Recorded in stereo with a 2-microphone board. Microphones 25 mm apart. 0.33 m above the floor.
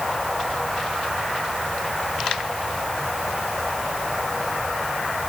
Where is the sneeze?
I don't hear a sneeze.